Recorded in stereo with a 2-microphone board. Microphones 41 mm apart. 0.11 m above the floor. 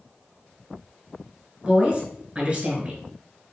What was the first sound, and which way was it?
A woman speaking, 25° right (ahead or behind).